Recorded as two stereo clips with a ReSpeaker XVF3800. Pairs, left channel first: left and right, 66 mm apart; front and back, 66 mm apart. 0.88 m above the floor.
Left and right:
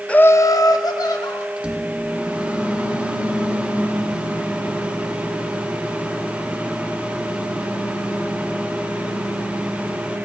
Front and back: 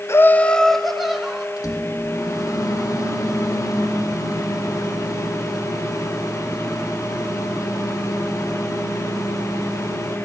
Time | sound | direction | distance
0.1 | laughter | 20° left | 0.6 m
1.6 | a microwave | 15° right | 2.5 m